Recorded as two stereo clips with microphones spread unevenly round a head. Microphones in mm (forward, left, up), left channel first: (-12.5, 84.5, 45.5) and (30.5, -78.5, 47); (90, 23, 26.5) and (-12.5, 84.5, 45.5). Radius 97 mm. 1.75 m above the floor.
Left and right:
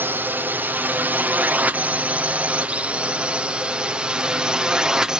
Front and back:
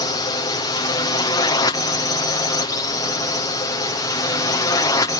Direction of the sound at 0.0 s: Straight ahead.